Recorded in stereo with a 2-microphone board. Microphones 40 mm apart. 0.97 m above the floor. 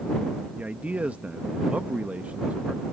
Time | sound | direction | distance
0.6 | a man speaking | 35° right (ahead or behind) | ?